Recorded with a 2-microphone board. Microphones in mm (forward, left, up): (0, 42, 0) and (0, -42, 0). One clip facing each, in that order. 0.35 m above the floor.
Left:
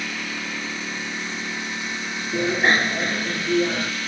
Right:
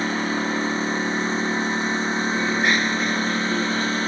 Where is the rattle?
No rattle in this recording.